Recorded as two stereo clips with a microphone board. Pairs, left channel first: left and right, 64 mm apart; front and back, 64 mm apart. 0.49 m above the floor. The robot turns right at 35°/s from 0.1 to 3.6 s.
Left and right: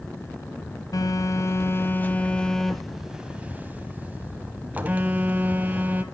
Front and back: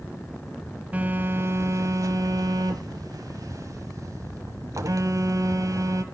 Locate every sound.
0.9 s a phone buzzing: 115° left, 1.0 m; by 6.0 s 155° right, 1.0 m